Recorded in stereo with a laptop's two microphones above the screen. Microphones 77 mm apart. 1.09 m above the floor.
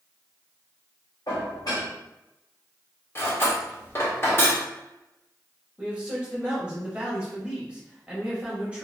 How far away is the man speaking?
About 0.9 m.